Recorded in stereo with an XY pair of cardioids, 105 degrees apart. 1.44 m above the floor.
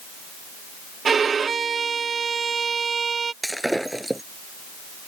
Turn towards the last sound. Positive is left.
turn(degrees=-5)